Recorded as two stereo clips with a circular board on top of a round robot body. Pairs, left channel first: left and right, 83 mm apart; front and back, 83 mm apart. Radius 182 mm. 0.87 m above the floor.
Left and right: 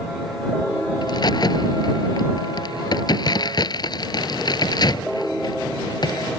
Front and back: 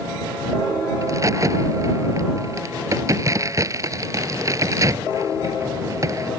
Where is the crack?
130° left.